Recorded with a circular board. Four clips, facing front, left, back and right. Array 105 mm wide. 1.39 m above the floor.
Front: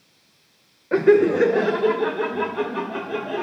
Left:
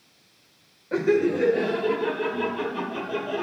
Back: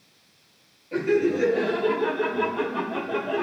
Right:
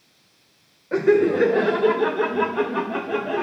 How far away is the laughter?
About 0.6 m.